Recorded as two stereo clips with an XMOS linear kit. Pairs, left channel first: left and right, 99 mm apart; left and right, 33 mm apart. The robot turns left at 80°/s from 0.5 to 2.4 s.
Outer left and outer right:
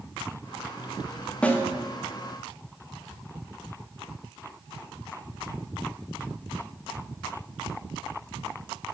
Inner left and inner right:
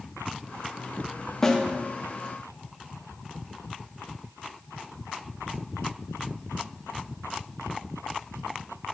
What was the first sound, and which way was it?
A snare drum, 10° left (ahead or behind).